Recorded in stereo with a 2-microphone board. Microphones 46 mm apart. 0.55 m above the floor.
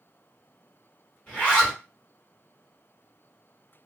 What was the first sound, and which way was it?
A zipper, 20° left (ahead or behind).